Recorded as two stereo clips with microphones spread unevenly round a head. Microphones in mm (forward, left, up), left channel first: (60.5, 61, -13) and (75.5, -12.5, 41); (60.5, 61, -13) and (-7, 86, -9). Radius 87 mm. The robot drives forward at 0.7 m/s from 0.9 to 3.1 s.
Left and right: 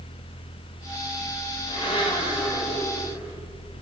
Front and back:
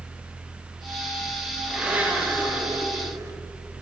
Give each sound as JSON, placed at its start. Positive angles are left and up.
{"t": 1.7, "sound": "a blender", "azimuth_deg": 80, "distance_m": 1.6}